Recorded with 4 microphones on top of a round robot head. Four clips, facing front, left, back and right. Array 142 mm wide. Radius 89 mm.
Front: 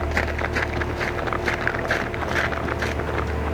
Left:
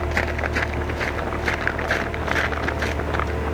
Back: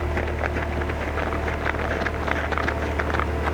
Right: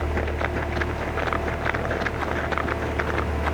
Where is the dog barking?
I don't hear a dog barking.